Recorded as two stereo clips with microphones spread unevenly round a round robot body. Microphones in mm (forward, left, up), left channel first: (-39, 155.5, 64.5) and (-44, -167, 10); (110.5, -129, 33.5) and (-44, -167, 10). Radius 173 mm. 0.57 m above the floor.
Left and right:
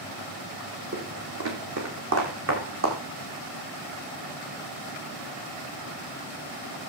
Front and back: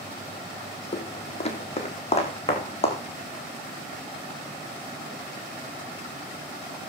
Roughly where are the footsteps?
Ahead right.